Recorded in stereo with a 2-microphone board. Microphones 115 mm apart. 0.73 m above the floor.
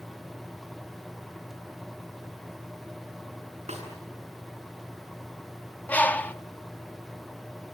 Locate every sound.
3.7 s a snare drum: 80° right, 6.5 m
5.9 s a bird: 15° left (ahead or behind), 0.6 m